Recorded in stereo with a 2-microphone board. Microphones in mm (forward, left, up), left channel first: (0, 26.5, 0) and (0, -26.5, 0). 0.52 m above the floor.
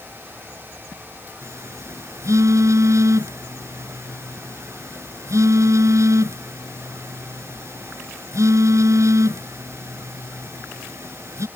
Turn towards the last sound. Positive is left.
turn(degrees=-70)  # may be behind; listen again after turning